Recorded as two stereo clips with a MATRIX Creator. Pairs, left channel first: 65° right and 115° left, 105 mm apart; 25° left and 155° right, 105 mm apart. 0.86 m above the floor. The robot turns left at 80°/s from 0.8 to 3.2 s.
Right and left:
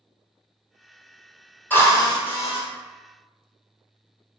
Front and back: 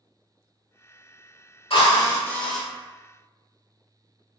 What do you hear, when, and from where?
1.7 s a drill: 5° left, 1.4 m; by 2.6 s 70° right, 1.4 m